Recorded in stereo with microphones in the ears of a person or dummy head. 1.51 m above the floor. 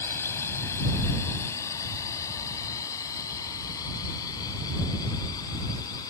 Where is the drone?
20° left (ahead or behind); by 6.1 s 25° left (ahead or behind).